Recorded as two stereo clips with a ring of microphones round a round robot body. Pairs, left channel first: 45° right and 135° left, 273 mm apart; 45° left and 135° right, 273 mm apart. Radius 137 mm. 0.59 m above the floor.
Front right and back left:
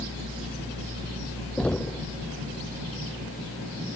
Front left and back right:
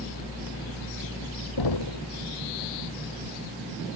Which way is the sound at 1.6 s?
40° left.